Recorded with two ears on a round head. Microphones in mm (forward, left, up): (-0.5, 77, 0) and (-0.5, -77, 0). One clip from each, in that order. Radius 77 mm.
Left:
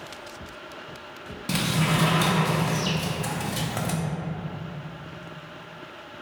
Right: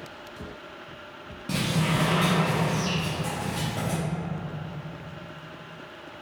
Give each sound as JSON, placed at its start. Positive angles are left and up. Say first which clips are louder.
{"t": 1.5, "sound": "a sliding door", "louder": "left 2 dB", "side_deg": 45, "distance_m": 0.6}